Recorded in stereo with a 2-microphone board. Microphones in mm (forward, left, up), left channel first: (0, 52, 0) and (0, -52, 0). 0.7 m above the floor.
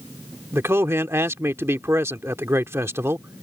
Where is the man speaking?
25° right (ahead or behind).